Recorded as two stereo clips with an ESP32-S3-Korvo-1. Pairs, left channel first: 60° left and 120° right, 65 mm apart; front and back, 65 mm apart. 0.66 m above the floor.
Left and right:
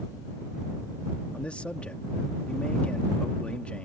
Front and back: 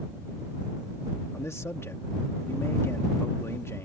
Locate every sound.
1.3 s a man speaking: straight ahead